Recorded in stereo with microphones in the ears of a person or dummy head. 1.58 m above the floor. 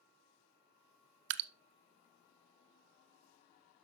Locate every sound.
1.3 s dripping: 70° right (ahead or behind), 0.5 m